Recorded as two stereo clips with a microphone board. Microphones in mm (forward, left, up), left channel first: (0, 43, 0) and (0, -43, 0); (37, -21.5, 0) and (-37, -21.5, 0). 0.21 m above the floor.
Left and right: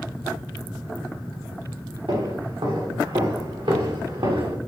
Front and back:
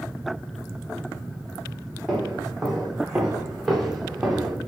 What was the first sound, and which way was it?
Footsteps, 90° right.